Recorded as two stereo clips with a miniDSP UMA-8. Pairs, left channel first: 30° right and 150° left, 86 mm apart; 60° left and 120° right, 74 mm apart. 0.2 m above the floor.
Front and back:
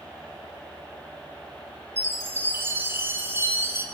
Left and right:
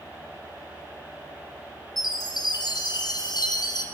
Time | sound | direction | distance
2.0 | a chime | 90° left | 3.5 m